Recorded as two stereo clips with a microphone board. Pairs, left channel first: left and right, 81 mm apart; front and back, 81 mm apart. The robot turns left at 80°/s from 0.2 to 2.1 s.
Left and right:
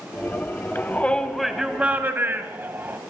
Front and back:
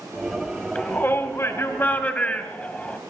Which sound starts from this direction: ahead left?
A shout, at 0.8 s.